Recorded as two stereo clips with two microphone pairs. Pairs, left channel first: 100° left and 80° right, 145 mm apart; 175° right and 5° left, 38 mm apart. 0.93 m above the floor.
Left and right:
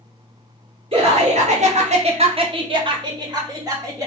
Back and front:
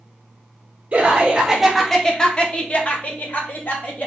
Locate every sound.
0.9 s laughter: 45° right, 0.7 m; by 4.1 s 145° right, 1.5 m